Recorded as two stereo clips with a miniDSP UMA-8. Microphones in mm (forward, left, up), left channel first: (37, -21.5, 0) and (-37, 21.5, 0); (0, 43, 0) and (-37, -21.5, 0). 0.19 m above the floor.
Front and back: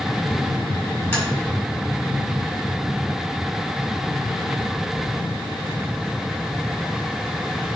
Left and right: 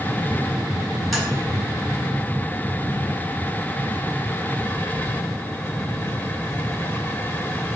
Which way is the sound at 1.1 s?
30° right.